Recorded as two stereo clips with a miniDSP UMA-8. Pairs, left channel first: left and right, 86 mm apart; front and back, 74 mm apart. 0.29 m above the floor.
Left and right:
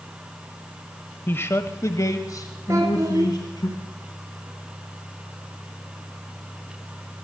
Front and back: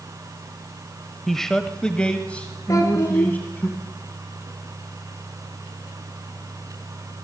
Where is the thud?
I don't hear a thud.